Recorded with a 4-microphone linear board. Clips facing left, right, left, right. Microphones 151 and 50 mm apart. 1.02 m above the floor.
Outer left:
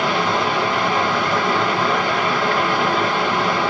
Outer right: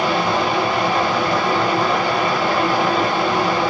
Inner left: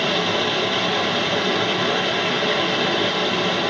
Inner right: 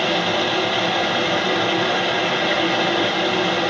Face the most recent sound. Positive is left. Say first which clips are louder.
# outer right 1 dB, inner right 1 dB
turn(degrees=-10)  # may be behind; listen again after turning